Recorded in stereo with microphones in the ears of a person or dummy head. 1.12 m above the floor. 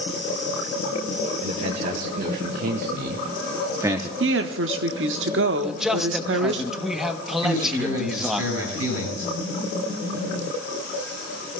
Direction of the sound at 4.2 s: 60° right (ahead or behind).